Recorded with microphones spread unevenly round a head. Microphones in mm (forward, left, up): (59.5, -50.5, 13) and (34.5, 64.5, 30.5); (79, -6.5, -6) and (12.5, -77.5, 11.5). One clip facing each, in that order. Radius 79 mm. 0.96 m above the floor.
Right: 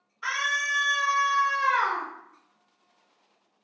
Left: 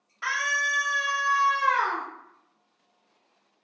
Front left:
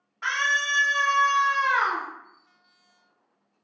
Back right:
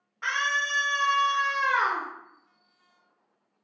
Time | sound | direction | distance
0.2 | a scream | 130° left | 1.0 m